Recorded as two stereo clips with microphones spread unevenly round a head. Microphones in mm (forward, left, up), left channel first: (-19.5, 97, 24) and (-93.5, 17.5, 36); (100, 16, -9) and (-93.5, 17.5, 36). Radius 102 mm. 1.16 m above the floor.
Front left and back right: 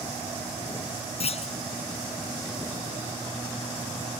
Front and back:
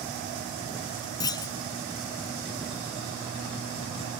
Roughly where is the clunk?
Left.